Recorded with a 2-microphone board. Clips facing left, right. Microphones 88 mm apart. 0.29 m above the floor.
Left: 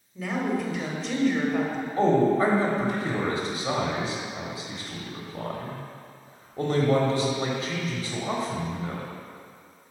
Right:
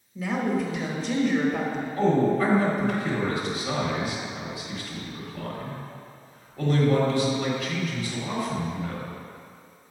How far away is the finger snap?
No finger snap in this recording.